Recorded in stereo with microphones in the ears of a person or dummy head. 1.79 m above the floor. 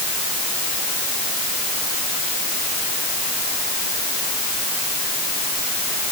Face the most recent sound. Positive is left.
No sound to turn to.